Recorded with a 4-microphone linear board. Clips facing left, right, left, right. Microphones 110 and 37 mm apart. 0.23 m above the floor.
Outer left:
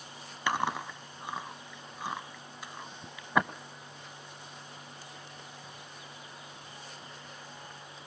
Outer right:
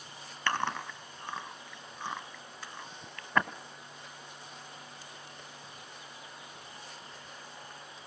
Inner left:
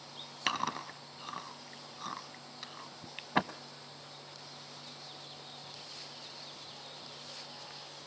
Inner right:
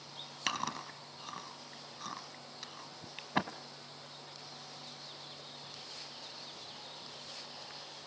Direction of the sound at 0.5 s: 10° left (ahead or behind).